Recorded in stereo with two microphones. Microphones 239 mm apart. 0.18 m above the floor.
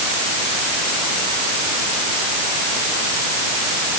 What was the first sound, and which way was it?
Only background noise.